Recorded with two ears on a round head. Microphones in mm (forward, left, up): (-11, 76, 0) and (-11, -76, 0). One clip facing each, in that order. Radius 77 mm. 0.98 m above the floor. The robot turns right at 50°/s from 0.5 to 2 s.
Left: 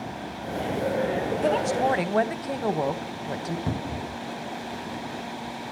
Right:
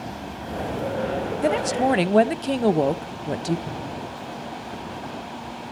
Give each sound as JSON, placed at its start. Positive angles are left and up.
{"t": 1.4, "sound": "a woman speaking", "side_deg": -10, "distance_m": 0.5}
{"t": 3.7, "sound": "a cupboard door", "side_deg": 65, "distance_m": 0.5}